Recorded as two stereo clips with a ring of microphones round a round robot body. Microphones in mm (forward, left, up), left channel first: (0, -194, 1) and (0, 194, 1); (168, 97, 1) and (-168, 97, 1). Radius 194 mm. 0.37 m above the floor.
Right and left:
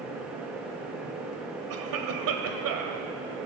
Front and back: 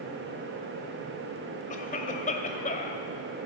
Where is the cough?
60° left, 1.8 m.